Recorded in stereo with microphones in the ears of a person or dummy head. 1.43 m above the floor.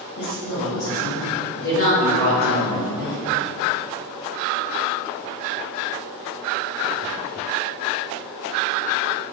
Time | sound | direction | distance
0.2 | a woman speaking | 80° left | 1.0 m